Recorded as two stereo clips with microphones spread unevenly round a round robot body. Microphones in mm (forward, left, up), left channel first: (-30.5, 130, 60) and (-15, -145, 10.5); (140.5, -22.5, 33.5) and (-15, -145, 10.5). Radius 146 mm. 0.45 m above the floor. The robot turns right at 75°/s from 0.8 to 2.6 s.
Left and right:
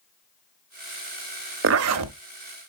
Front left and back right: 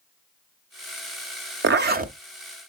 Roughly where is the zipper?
Behind right.